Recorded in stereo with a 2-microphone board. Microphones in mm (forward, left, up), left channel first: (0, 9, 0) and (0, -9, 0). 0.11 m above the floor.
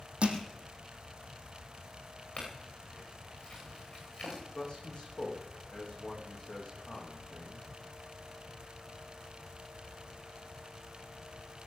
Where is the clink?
50° left (ahead or behind), 9.5 m.